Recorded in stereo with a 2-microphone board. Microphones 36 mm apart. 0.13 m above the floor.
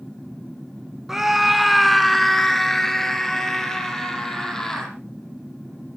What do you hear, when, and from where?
1.1 s a scream: 10° right (ahead or behind), 1.1 m; by 4.9 s 10° left (ahead or behind), 4 m